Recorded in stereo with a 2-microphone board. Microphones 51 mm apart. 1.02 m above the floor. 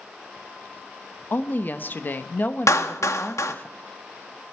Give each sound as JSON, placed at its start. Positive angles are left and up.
{"t": 1.3, "sound": "a woman speaking", "side_deg": 40, "distance_m": 0.9}
{"t": 2.7, "sound": "a clap", "side_deg": 80, "distance_m": 1.1}